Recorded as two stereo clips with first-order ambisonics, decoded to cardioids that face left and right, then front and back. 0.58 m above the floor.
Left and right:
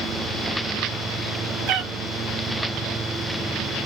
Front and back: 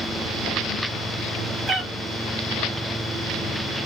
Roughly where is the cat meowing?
Right.